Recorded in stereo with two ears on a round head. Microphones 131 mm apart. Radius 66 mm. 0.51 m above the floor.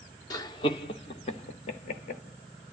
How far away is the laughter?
About 1.4 m.